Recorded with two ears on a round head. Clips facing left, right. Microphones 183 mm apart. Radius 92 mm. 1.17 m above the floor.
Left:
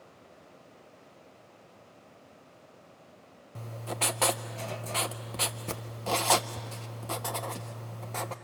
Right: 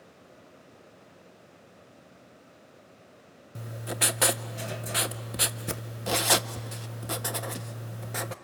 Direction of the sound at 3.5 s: 15° right (ahead or behind).